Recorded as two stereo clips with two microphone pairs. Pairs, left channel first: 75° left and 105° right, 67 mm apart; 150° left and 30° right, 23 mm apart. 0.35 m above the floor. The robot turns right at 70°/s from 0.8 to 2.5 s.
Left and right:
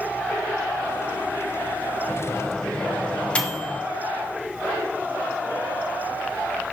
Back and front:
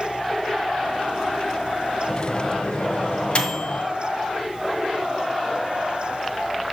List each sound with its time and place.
2.1 s a microwave: 115° left, 1.3 m; by 3.8 s 145° left, 1.3 m